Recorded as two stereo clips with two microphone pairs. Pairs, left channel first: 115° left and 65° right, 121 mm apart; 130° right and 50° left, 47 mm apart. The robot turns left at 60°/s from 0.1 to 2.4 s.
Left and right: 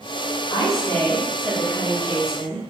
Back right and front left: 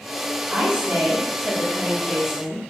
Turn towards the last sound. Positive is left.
turn(degrees=-35)